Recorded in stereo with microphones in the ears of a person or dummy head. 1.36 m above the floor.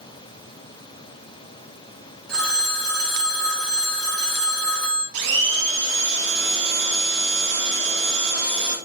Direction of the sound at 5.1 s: 70° right (ahead or behind).